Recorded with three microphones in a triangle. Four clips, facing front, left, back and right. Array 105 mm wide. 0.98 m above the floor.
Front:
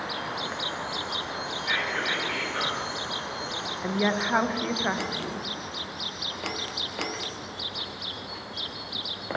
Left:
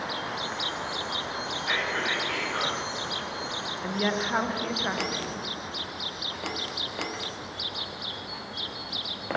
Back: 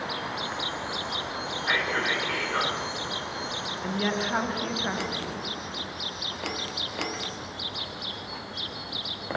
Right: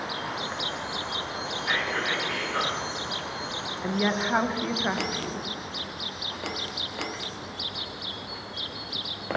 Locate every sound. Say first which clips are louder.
1.6 s whispering: right 1 dB, back 3 dB; 175° right, 3 m
3.8 s a woman speaking: right 2 dB, front 3 dB; 20° right, 0.7 m